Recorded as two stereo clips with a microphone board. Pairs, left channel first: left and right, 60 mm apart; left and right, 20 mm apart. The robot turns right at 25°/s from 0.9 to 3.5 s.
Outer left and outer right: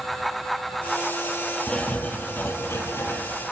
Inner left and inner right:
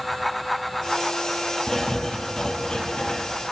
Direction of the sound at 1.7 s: 20° left.